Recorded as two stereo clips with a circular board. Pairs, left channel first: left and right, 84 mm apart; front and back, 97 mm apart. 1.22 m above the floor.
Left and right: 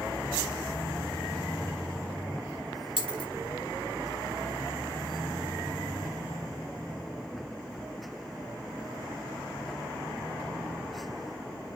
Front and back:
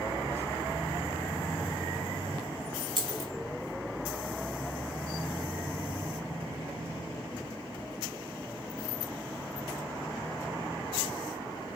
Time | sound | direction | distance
3.0 | a dropped coin | 85° left | 3 m